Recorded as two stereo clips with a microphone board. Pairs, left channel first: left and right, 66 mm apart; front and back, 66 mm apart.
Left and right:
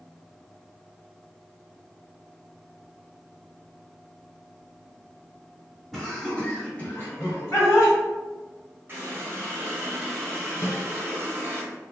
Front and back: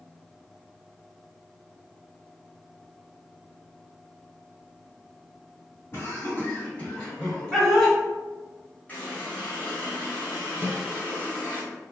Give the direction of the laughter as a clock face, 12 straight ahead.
12 o'clock.